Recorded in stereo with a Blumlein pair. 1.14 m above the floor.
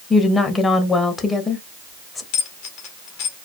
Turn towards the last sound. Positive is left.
turn(degrees=45)